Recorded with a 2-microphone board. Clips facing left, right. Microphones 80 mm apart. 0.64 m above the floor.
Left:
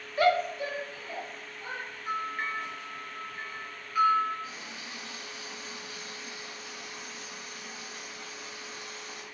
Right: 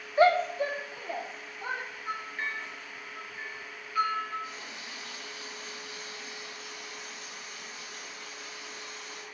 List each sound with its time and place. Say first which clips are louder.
0.2 s a shout: right 3 dB; 25° right (ahead or behind), 0.5 m; by 1.8 s 40° right (ahead or behind), 1.7 m
2.1 s a bell: left 4 dB; 15° left (ahead or behind), 4 m
4.4 s a running tap: even; 30° left (ahead or behind), 5 m